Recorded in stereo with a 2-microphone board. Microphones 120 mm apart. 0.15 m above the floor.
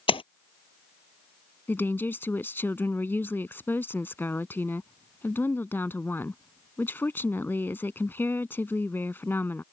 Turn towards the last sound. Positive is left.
turn(degrees=20)  # may be behind; listen again after turning